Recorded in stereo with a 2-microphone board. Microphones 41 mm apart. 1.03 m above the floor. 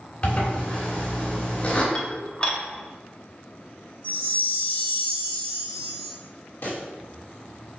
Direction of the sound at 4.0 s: 55° left (ahead or behind).